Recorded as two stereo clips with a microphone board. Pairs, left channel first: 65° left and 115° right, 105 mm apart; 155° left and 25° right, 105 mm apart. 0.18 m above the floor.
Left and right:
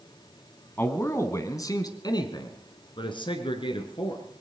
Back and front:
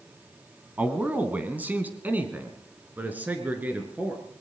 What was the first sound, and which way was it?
A man speaking, 30° left.